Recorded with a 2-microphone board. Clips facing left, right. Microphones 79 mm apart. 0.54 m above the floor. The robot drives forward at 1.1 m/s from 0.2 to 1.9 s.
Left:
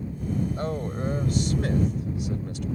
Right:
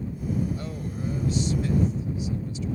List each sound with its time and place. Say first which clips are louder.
0.6 s a man speaking: left 4 dB; 50° left (ahead or behind); by 2.7 s 70° left (ahead or behind)